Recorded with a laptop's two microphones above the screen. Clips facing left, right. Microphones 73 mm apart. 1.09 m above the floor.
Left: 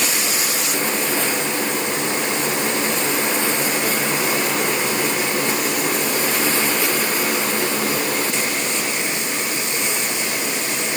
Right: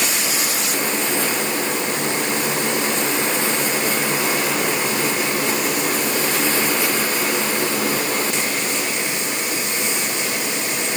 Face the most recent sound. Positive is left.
No sound to turn to.